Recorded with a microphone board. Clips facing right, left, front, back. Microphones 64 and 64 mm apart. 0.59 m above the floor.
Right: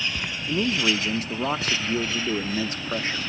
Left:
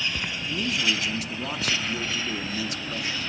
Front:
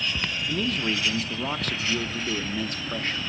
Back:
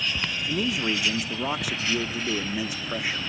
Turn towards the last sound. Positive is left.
turn(degrees=-110)